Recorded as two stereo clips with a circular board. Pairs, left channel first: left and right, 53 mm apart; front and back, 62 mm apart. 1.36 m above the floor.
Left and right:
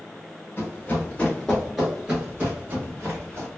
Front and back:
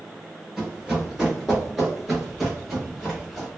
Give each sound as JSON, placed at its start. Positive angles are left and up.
{"t": 0.6, "sound": "running footsteps", "azimuth_deg": 100, "distance_m": 1.5}